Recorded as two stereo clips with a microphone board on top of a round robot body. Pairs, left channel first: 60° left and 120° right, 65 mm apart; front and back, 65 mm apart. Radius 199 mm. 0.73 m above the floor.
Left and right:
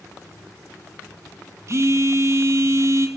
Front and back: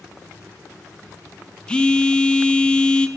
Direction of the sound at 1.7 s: 75° right.